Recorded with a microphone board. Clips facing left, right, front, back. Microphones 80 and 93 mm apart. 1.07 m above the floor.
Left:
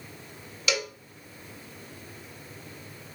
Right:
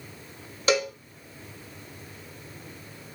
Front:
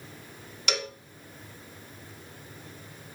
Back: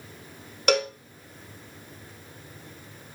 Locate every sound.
0.7 s a cowbell: 140° right, 1.6 m